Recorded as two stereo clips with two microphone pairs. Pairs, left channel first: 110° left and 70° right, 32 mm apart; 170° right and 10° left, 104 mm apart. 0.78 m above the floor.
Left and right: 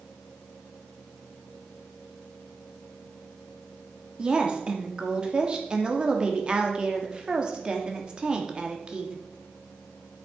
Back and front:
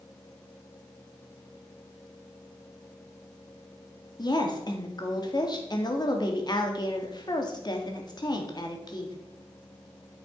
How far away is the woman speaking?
About 1.7 m.